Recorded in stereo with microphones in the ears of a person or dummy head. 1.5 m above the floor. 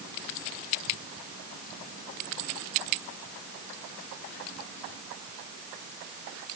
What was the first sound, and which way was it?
Only background noise.